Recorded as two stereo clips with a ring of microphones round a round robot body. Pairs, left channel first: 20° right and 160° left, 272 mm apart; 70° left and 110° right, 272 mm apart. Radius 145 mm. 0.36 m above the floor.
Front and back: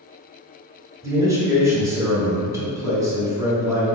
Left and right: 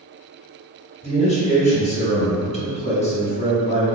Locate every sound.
1.0 s a man speaking: 95° left, 1.0 m